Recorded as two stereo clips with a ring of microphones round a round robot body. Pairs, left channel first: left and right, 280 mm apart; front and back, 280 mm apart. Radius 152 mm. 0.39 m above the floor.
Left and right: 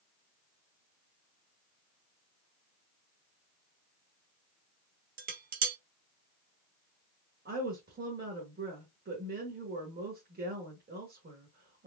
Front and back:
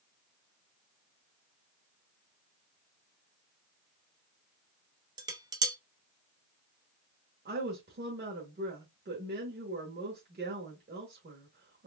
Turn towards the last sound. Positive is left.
turn(degrees=-135)